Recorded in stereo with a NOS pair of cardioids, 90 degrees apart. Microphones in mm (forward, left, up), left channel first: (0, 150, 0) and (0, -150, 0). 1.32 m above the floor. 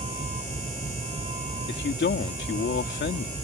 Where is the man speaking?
40° left.